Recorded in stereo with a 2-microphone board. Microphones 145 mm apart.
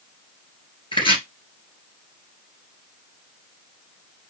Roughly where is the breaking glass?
No breaking glass in this recording.